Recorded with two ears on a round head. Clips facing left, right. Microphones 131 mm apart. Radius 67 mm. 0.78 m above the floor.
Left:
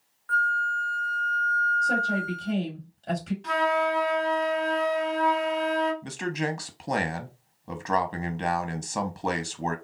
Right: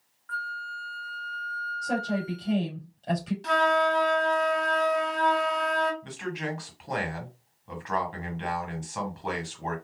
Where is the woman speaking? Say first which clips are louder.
Left 1 dB; centre (ahead or behind), 3 m.